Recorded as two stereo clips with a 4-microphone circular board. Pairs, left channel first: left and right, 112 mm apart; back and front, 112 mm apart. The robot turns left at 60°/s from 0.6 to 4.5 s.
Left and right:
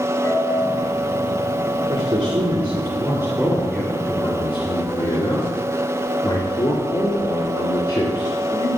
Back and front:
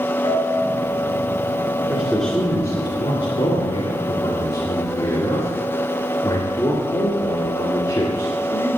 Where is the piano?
145° left, 2.5 m; by 2.2 s 45° left, 2.5 m.